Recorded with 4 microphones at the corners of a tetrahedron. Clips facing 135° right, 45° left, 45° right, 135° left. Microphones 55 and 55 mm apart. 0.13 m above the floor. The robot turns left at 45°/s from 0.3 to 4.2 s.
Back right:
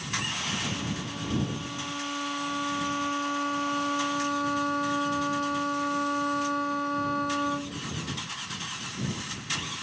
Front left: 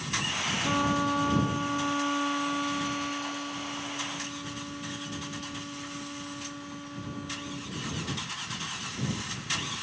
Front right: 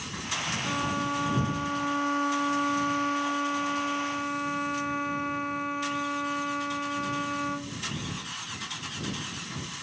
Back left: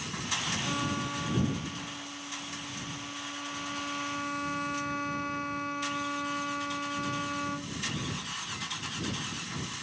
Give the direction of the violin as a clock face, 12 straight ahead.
11 o'clock.